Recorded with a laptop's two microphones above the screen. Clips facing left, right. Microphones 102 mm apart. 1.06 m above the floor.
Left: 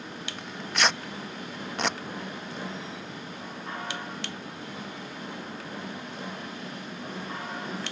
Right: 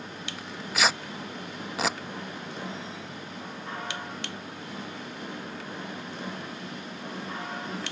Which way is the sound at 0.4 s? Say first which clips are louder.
Even; 5° right (ahead or behind).